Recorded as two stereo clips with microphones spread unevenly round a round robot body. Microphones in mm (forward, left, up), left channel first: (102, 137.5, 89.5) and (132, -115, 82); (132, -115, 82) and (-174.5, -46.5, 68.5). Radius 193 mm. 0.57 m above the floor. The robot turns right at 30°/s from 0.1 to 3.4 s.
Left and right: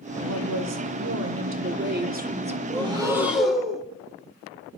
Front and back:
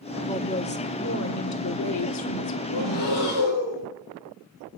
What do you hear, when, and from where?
0.2 s a woman speaking: 85° right, 2.0 m; by 3.2 s 5° left, 2.0 m
2.7 s breathing: 15° right, 3 m; by 3.8 s 5° left, 3 m